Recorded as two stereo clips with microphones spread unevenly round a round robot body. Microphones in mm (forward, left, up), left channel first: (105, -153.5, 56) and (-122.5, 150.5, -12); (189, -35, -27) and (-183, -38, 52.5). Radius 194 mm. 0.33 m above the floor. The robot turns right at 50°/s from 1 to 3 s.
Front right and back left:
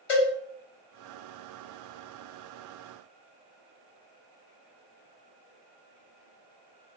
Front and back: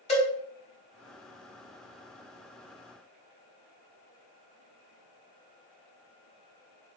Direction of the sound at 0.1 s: 65° right.